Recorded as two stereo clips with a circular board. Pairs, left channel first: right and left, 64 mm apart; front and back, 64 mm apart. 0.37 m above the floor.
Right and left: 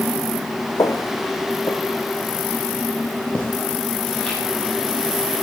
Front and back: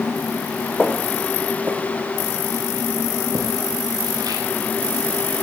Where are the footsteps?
75° right, 1.7 m; by 5.4 s 175° right, 6 m.